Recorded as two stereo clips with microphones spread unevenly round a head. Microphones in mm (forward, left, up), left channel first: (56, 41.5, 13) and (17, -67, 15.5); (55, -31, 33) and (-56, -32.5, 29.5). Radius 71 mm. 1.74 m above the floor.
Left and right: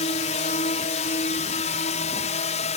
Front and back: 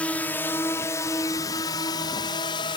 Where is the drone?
80° left; by 2.8 s 55° left.